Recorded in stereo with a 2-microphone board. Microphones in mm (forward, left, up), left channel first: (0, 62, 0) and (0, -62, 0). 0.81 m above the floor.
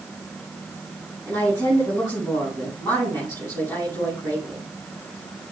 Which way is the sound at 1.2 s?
20° left (ahead or behind).